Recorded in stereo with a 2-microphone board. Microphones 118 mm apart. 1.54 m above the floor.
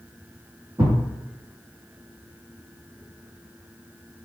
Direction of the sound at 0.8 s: 30° right (ahead or behind).